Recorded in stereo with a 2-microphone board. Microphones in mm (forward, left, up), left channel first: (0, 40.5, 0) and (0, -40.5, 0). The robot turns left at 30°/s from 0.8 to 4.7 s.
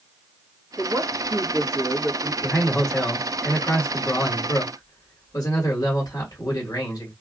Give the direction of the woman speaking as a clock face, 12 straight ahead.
3 o'clock.